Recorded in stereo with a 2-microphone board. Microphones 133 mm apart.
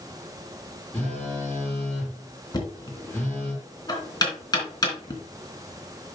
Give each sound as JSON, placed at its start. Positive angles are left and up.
{"t": 0.9, "sound": "a phone buzzing", "side_deg": 15, "distance_m": 5.5}
{"t": 2.5, "sound": "knocking", "side_deg": 30, "distance_m": 3.0}